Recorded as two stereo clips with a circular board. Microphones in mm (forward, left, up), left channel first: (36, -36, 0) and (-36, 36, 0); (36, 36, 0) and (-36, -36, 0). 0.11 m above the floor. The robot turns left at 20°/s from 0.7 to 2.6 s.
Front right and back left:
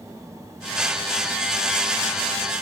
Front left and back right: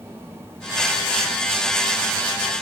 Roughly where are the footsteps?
I don't hear footsteps.